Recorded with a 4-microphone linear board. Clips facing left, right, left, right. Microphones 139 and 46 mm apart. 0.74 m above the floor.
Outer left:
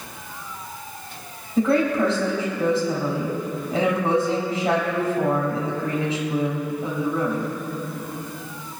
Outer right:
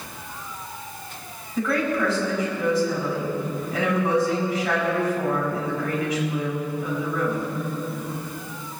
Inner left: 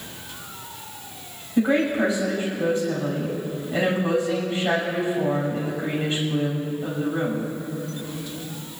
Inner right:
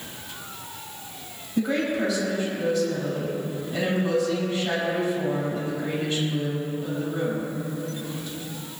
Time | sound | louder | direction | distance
1.6 | a woman speaking | outer left 4 dB, inner left 4 dB | 30° left (ahead or behind) | 5 m